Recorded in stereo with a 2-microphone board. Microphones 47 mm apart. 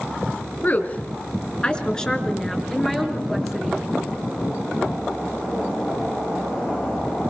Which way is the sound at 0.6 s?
35° left (ahead or behind).